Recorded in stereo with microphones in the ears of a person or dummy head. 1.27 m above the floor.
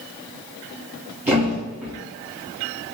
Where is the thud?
5° right (ahead or behind), 1.2 m.